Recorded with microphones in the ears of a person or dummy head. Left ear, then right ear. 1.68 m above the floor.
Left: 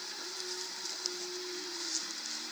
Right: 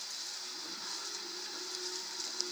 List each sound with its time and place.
Only background noise.